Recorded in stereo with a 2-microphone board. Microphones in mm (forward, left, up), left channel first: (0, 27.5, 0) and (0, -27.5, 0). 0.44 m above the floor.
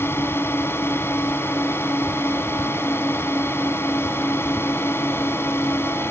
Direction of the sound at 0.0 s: 50° left (ahead or behind).